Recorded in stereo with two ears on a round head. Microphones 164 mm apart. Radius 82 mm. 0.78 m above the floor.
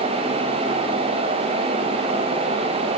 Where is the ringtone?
I don't hear a ringtone.